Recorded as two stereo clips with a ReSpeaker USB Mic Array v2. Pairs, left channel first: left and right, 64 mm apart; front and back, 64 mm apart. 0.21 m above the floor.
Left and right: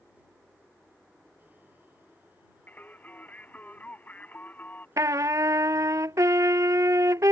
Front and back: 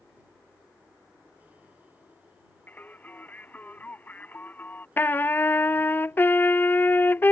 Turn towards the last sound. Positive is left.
turn(degrees=-60)